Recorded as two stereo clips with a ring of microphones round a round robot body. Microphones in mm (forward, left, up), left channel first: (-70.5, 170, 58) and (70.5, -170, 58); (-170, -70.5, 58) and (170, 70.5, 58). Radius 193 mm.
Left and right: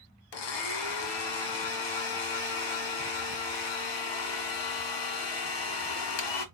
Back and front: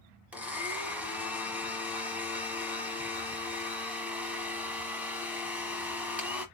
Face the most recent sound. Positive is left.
turn(degrees=110)